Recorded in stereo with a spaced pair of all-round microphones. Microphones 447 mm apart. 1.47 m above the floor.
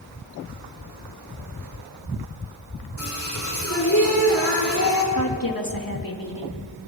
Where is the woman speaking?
50° left (ahead or behind), 3 m.